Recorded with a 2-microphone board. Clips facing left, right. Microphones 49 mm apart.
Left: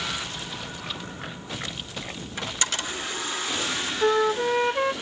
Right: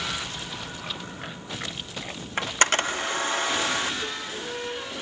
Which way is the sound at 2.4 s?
50° right (ahead or behind).